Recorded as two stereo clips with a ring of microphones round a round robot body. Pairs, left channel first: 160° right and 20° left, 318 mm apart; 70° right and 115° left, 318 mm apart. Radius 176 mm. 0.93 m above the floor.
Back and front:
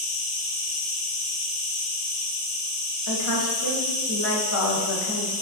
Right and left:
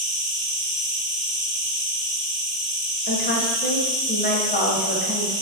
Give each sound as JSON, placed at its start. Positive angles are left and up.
{"t": 0.0, "sound": "an insect", "azimuth_deg": 45, "distance_m": 1.6}
{"t": 3.1, "sound": "a woman speaking", "azimuth_deg": -125, "distance_m": 0.7}